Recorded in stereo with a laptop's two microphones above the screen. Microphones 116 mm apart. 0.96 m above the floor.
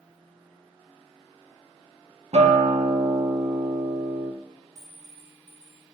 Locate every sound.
2.3 s a guitar: 70° right (ahead or behind), 1.1 m
4.8 s a clink: 5° right (ahead or behind), 1.6 m